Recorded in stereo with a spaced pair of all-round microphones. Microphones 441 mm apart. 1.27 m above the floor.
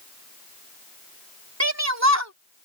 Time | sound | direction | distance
1.6 | a shout | 35° right (ahead or behind) | ?